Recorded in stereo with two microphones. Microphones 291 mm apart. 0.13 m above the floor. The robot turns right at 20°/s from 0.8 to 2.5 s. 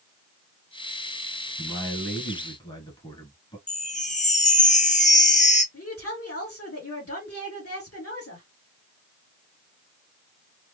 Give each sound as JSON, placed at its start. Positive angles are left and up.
{"t": 1.6, "sound": "a man speaking", "side_deg": 5, "distance_m": 1.4}
{"t": 3.7, "sound": "a chime", "side_deg": 25, "distance_m": 0.7}
{"t": 5.7, "sound": "a woman speaking", "side_deg": 50, "distance_m": 2.0}